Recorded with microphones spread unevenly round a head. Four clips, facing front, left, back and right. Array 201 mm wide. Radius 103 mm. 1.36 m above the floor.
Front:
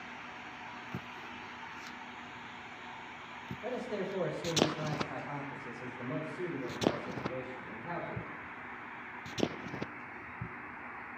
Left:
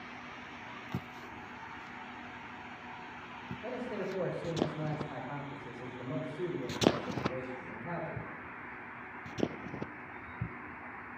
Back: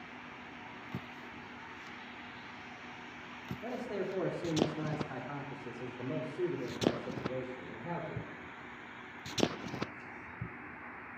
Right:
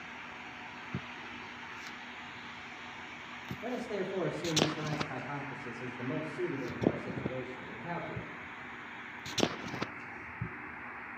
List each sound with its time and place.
3.6 s a man speaking: 135° right, 4 m; by 8.3 s 165° right, 5.5 m